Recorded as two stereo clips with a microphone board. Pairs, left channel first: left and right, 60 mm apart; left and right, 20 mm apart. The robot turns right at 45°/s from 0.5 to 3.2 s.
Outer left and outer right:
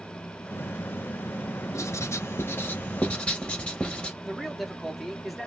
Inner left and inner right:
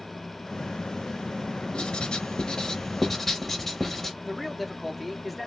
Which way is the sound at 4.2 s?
Centre (ahead or behind).